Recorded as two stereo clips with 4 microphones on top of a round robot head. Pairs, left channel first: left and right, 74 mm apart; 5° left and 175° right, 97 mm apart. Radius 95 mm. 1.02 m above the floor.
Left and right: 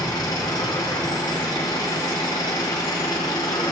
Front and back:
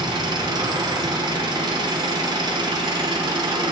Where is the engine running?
145° left, 1.1 m.